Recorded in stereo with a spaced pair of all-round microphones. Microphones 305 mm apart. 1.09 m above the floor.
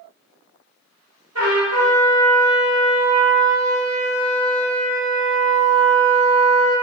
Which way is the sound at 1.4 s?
55° right (ahead or behind).